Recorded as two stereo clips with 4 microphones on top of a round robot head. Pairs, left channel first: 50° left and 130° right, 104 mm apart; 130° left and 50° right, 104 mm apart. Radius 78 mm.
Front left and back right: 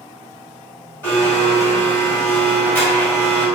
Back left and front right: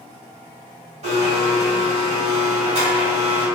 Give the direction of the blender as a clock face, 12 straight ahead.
1 o'clock.